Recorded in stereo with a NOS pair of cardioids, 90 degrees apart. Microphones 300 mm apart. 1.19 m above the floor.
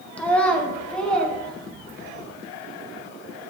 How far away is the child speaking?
About 0.7 m.